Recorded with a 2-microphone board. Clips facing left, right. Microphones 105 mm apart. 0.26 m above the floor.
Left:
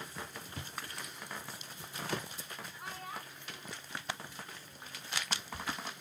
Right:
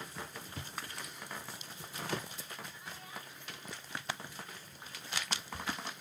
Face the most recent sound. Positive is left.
turn(degrees=20)  # may be behind; listen again after turning